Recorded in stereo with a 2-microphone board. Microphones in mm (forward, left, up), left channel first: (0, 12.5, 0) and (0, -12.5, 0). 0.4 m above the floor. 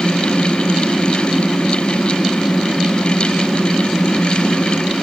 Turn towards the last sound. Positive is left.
No sound to turn to.